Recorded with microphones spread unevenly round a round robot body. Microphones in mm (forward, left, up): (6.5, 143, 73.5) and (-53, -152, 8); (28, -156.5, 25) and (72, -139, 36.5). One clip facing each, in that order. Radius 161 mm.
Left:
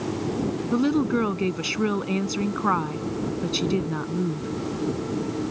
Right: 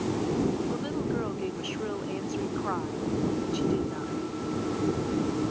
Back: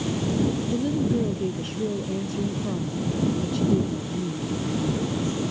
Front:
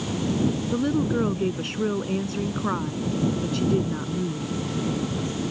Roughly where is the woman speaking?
Left.